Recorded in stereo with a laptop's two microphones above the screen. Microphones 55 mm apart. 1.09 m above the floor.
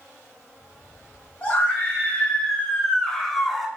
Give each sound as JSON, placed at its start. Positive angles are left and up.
{"t": 1.4, "sound": "a scream", "side_deg": 25, "distance_m": 1.5}